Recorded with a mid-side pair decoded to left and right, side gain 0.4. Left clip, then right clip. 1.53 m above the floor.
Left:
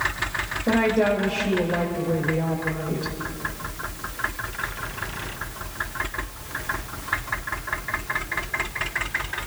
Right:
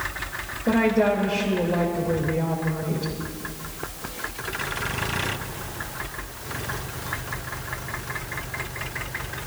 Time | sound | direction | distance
0.7 | a woman speaking | straight ahead | 3 m